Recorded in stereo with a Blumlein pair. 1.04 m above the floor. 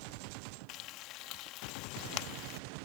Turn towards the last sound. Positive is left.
turn(degrees=40)